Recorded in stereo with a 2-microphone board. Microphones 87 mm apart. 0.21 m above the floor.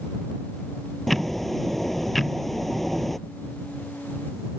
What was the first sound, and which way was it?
Ticking, centre (ahead or behind).